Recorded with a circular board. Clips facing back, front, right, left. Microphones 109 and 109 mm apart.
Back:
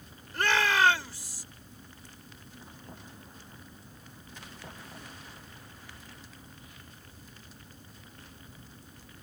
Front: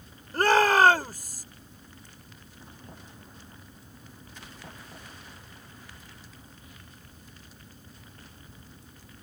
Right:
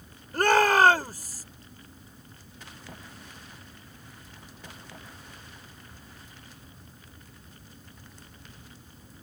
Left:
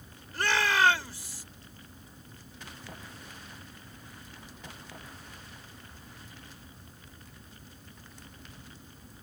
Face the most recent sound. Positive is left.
turn(degrees=-40)